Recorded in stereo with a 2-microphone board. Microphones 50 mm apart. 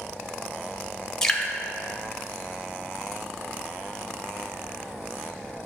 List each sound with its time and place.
1.2 s dripping: 15° left (ahead or behind), 0.9 m